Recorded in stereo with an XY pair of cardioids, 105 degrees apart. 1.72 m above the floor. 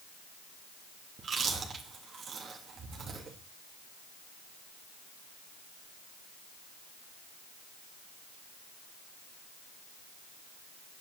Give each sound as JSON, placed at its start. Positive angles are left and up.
{"t": 1.2, "sound": "chewing", "azimuth_deg": -50, "distance_m": 3.0}